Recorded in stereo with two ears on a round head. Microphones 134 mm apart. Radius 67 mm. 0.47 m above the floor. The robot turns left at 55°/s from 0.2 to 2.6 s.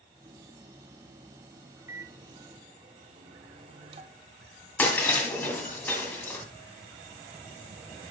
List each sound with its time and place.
1.9 s a microwave: 30° right, 0.5 m; by 4.3 s 70° right, 0.5 m
4.8 s breaking glass: 10° left (ahead or behind), 1.8 m